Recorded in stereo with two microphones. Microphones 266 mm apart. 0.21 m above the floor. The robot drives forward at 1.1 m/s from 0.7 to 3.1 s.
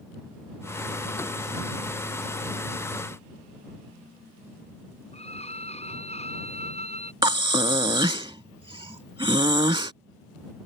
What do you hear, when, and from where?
5.1 s a violin: 25° left (ahead or behind)
7.2 s breathing: 20° right (ahead or behind)